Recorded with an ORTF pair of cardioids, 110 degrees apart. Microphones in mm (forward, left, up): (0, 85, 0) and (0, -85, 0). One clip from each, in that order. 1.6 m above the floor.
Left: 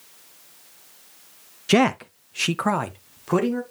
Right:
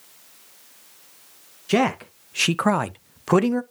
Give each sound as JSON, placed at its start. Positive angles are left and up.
{"t": 1.7, "sound": "a man speaking", "azimuth_deg": 35, "distance_m": 0.6}